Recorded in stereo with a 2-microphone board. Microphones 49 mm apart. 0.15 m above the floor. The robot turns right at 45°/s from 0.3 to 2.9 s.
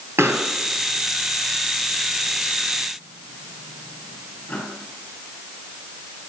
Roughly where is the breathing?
I don't hear breathing.